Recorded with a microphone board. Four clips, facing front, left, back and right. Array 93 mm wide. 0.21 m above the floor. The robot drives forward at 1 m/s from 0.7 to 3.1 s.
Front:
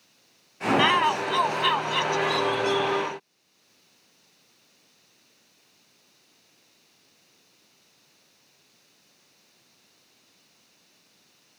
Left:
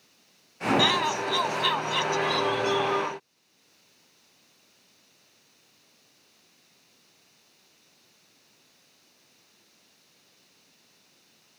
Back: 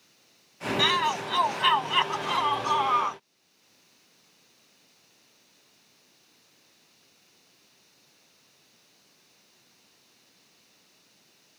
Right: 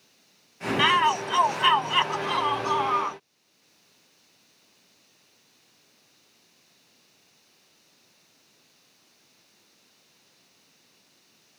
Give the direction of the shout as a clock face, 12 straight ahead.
2 o'clock.